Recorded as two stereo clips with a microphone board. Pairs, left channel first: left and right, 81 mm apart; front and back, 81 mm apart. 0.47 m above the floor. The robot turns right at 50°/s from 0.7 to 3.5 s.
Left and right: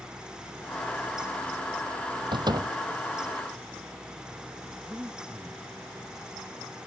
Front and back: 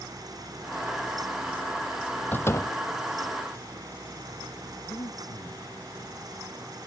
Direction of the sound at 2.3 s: 65° right.